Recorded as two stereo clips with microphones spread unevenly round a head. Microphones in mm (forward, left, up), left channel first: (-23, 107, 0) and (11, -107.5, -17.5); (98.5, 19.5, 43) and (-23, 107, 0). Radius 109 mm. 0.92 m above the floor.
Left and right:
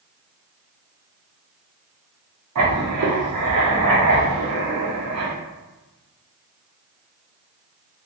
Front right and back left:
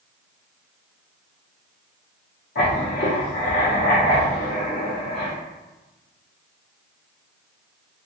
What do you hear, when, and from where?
2.5 s writing: 65° right, 0.9 m